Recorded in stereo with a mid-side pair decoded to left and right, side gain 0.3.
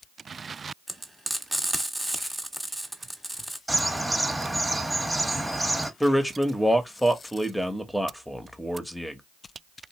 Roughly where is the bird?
Ahead.